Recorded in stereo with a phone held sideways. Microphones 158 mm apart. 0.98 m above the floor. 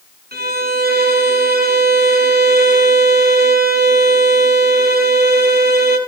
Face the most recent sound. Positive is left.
turn(degrees=-75)  # may be behind; listen again after turning